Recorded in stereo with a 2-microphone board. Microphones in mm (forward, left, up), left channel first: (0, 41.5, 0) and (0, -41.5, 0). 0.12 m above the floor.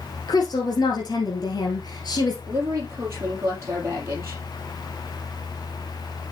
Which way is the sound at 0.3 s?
55° left (ahead or behind).